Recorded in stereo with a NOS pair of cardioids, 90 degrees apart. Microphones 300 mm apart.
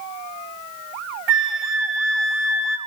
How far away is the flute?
About 3.5 m.